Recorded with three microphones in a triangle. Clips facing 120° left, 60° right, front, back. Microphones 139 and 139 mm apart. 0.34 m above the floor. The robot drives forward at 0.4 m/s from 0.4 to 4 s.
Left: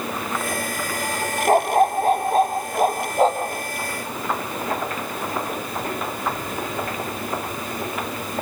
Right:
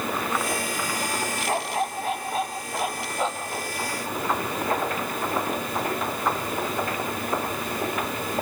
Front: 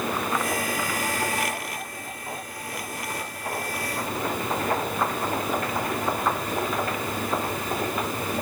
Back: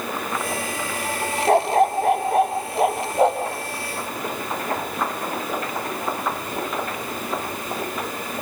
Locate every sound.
1.5 s a dog barking: 165° left; by 3.5 s 170° left